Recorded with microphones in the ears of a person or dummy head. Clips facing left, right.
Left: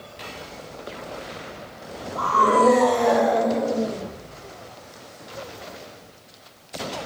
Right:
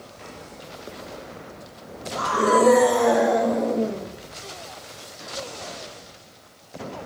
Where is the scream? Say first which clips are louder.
Even; 25° right (ahead or behind), 2.5 m; by 4.0 s 5° left (ahead or behind), 3.5 m.